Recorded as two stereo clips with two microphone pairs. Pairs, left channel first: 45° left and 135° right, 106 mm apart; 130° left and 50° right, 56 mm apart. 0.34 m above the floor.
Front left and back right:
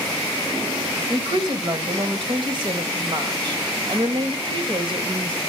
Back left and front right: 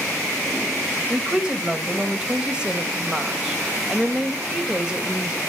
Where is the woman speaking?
120° right, 1.5 m.